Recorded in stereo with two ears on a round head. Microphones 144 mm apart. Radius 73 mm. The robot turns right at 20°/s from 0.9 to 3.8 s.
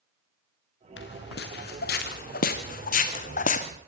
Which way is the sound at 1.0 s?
80° left.